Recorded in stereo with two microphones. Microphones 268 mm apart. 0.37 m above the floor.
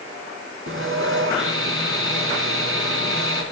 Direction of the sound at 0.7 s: 50° right (ahead or behind).